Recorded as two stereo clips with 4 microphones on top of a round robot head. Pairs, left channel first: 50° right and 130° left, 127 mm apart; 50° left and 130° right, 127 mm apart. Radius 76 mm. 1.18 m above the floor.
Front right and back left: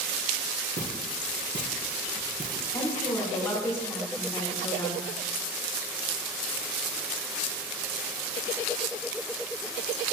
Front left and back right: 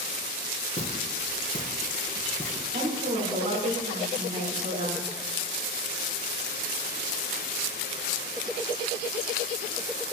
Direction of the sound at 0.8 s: 95° left.